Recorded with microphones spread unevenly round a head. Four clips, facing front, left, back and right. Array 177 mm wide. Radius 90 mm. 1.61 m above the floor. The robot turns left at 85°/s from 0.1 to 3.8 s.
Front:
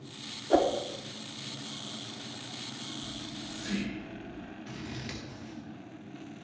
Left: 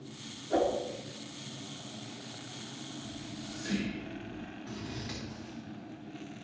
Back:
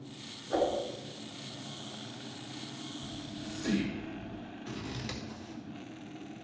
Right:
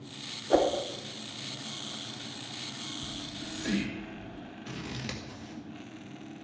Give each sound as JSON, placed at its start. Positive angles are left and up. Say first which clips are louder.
{"t": 0.5, "sound": "a whoosh", "louder": "right 4 dB, front 5 dB", "azimuth_deg": -40, "distance_m": 0.9}
{"t": 3.0, "sound": "whispering", "louder": "right 1 dB, even", "azimuth_deg": -90, "distance_m": 1.7}
{"t": 4.7, "sound": "scissors", "louder": "right 3 dB, back 2 dB", "azimuth_deg": -95, "distance_m": 1.9}